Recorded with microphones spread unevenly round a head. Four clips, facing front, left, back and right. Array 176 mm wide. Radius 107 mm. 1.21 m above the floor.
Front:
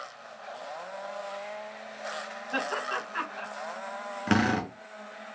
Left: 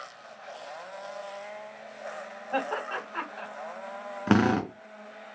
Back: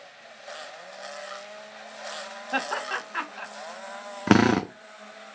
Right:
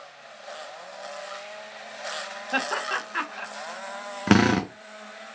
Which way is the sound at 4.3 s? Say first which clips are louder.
Right 3 dB, back 6 dB; 170° right.